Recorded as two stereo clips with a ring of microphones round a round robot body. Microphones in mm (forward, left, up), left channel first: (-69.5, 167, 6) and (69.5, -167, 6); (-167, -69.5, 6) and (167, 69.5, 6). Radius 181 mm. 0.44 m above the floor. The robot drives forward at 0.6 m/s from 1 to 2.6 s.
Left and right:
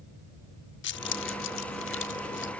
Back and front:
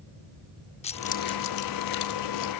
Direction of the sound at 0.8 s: 140° left.